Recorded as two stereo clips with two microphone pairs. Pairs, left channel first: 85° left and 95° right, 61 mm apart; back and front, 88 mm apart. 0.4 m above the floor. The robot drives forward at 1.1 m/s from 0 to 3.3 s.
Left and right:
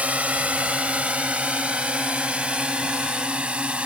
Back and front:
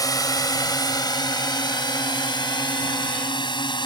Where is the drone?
160° right; by 3.9 s 170° right.